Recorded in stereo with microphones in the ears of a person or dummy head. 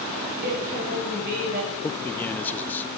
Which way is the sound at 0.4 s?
45° right (ahead or behind).